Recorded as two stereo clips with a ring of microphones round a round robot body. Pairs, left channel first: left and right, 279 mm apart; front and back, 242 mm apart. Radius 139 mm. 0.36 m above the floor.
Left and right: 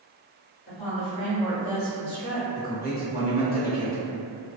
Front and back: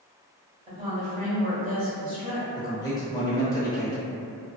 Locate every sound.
0.7 s a woman speaking: 130° left, 1.5 m; by 2.5 s 150° right, 1.4 m
2.5 s a man speaking: 60° left, 0.9 m